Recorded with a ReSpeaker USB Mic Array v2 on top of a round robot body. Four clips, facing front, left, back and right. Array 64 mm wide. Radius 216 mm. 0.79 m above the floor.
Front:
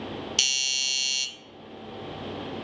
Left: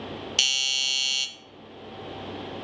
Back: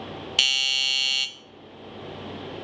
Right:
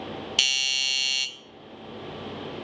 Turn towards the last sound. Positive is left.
turn(degrees=-165)